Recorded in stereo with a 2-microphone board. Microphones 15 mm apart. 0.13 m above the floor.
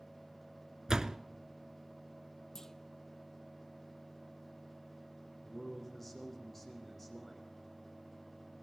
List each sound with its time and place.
0.9 s a door slam: 40° right (ahead or behind), 0.9 m
2.5 s a clunk: 30° left (ahead or behind), 0.9 m
5.4 s a man speaking: 10° left (ahead or behind), 8 m